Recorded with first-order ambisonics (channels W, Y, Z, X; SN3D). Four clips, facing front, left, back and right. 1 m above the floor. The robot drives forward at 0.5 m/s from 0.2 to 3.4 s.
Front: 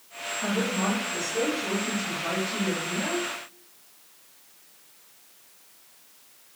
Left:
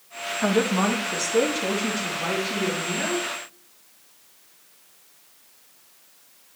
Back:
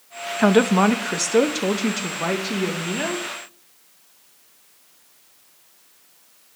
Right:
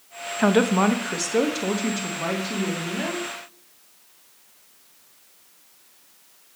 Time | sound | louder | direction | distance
0.4 | a woman speaking | right 3 dB, back 11 dB | 155° right | 0.6 m